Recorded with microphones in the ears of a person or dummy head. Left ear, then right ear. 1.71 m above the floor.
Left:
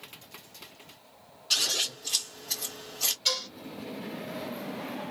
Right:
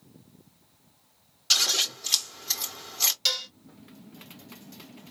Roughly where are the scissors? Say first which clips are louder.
Right 4 dB; right.